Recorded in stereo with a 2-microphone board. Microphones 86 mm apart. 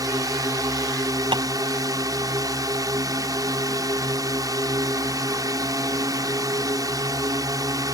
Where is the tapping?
70° right (ahead or behind).